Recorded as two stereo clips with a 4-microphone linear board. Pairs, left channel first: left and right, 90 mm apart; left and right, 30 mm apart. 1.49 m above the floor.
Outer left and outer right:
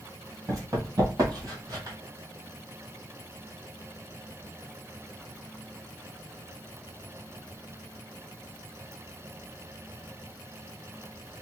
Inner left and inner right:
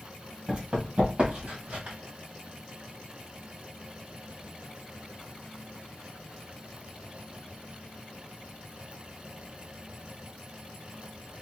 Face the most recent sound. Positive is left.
turn(degrees=-40)  # may be behind; listen again after turning